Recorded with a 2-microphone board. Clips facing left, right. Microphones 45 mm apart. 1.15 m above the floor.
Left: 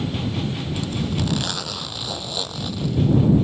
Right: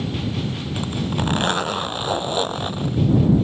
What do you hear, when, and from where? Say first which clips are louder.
0.8 s a zipper: right 2 dB; 35° right (ahead or behind)